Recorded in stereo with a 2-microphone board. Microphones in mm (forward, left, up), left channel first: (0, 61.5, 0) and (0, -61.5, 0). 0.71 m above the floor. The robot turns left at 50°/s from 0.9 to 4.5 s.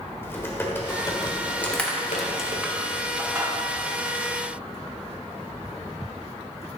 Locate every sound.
0.2 s typing on a keyboard: 160° left, 1.3 m; by 2.6 s 75° left, 1.3 m
1.6 s crushing: 15° left (ahead or behind), 1.1 m; by 3.5 s 25° right (ahead or behind), 1.1 m